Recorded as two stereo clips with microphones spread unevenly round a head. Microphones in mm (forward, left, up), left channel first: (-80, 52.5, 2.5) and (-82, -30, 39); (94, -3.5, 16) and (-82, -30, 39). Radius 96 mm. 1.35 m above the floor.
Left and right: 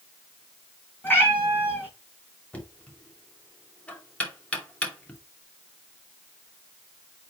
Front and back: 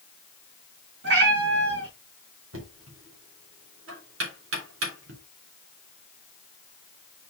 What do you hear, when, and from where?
1.0 s a cat meowing: 160° left, 4 m
2.5 s knocking: 165° left, 2.5 m